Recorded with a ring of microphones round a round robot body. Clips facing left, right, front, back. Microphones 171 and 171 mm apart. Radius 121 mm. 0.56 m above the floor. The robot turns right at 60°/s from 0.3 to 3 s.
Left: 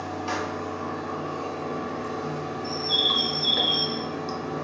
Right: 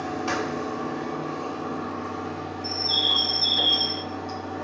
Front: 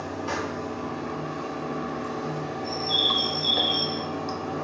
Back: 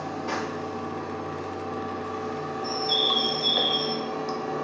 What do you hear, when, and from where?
0.0 s running water: 70° right, 0.8 m; by 4.7 s 95° left, 0.8 m
2.6 s a bird: 130° right, 0.7 m; by 4.0 s 105° right, 0.7 m